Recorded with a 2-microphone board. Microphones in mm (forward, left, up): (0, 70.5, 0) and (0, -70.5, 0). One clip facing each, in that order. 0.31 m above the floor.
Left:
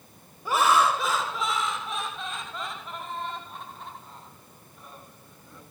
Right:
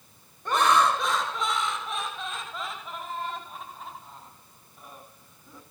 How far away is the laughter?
About 1.6 m.